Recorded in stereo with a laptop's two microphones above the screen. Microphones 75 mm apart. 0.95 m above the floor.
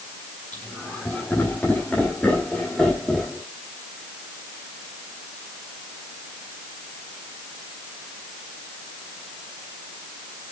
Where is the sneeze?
I don't hear a sneeze.